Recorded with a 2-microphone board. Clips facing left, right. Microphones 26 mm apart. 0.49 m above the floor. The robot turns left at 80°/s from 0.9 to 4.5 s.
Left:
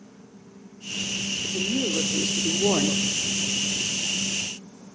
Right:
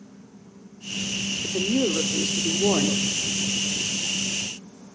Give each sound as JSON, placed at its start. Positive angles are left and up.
{"t": 1.4, "sound": "a woman speaking", "azimuth_deg": -55, "distance_m": 1.1}